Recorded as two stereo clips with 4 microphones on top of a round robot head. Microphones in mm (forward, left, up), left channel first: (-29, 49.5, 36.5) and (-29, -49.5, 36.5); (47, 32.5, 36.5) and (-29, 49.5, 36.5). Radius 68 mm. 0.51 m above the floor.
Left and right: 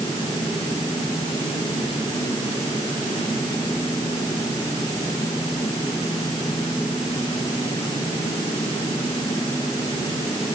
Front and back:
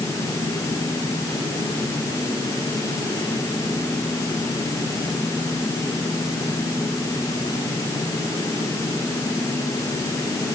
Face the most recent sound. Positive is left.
No sound to turn to.